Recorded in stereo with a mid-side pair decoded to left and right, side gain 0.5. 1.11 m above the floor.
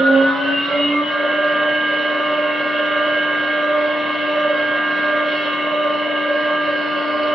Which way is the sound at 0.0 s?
5° right.